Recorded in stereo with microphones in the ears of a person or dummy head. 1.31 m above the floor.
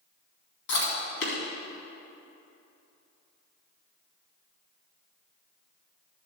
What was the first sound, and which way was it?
Chewing, 65° left (ahead or behind).